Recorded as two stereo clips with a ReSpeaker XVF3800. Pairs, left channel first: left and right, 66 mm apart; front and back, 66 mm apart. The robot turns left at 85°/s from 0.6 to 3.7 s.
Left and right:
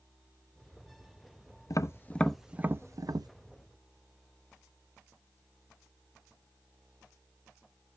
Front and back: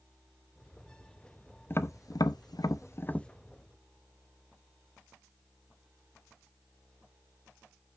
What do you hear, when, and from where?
1.7 s tapping: 55° left, 0.6 m; by 3.3 s 80° right, 0.6 m